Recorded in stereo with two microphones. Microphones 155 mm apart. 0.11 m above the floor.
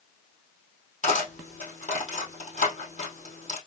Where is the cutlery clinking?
50° left (ahead or behind), 2.5 m.